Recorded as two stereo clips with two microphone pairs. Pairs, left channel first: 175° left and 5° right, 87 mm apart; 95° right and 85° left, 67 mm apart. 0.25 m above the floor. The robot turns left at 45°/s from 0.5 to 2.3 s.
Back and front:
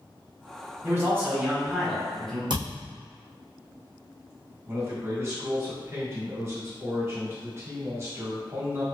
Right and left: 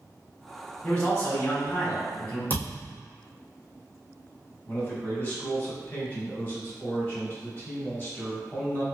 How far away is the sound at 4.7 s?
About 1.4 m.